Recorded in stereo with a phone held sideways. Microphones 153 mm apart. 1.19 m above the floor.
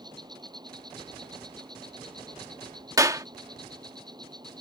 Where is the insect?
30° right (ahead or behind).